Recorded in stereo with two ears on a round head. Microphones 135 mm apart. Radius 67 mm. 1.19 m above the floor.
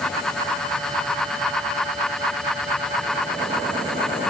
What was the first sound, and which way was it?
Only background noise.